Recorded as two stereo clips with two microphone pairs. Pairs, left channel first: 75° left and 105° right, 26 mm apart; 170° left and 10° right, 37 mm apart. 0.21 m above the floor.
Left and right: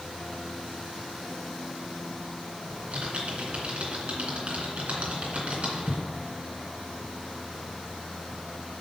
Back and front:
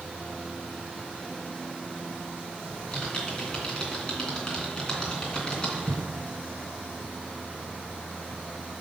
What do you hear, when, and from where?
2.7 s typing on a keyboard: 125° right, 2.5 m